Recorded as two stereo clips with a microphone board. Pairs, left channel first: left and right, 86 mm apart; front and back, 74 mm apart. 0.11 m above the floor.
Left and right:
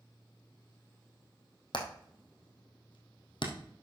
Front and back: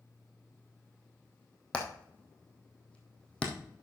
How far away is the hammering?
About 2 m.